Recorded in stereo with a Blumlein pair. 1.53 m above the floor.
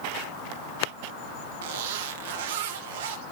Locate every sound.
1.6 s a zipper: 55° right, 1.2 m